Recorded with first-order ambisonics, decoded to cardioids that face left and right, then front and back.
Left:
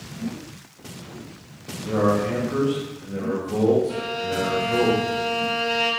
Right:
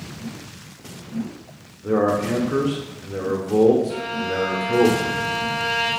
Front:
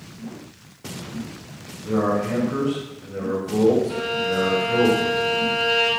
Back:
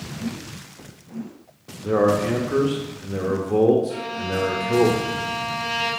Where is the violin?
35° left, 1.9 m.